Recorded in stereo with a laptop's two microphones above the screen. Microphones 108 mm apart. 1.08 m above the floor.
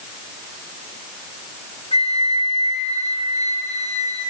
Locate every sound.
1.9 s a flute: 70° left (ahead or behind), 1.4 m